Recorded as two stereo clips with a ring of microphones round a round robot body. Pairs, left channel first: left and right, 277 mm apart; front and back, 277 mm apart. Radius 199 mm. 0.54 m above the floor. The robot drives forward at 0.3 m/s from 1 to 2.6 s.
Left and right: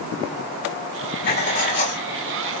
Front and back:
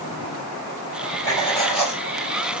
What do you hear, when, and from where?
1.2 s writing: 75° left, 1.2 m; by 2.0 s 95° left, 1.2 m